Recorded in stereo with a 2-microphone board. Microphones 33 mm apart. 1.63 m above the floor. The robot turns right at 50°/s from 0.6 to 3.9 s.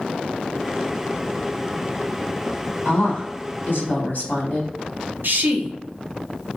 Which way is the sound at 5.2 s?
75° right (ahead or behind).